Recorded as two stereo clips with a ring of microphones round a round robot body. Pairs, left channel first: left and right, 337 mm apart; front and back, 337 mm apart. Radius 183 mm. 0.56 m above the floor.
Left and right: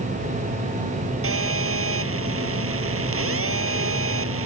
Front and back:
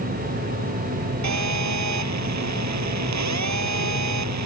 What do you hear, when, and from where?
1.2 s a phone buzzing: 140° right